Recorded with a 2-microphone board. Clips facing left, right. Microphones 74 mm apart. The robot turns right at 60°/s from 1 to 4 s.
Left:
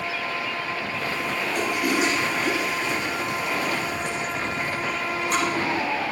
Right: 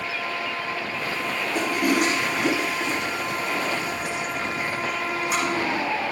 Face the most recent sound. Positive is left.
turn(degrees=-5)  # may be behind; listen again after turning